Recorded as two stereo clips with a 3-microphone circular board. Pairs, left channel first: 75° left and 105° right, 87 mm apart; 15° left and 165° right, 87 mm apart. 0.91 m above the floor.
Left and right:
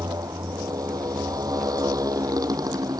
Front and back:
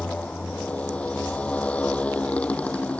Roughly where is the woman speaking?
No woman speaking in this recording.